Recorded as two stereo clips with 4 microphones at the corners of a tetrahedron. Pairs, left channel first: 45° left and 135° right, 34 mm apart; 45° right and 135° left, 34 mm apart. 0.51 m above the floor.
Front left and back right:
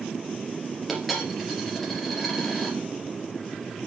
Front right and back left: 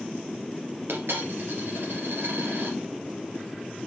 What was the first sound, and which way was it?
A dropped coin, 140° left.